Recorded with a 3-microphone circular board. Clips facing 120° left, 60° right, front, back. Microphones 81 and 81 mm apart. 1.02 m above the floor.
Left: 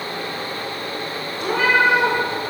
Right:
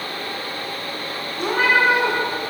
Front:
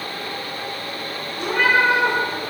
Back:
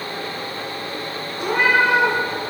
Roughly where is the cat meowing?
Right.